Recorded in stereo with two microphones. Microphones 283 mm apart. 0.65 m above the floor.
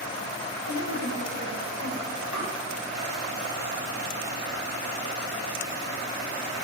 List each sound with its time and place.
0.7 s a woman speaking: 70° right (ahead or behind), 3.5 m
2.3 s tapping: 5° right (ahead or behind), 4.5 m